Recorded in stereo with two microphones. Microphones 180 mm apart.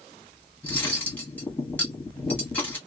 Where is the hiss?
No hiss in this recording.